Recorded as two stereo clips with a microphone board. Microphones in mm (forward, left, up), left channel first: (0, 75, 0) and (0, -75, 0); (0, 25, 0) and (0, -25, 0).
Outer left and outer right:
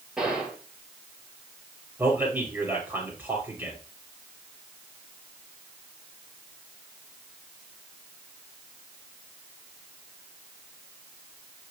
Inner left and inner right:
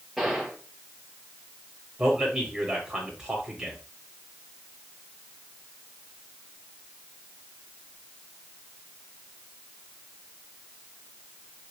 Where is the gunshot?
5° right (ahead or behind), 4.5 m.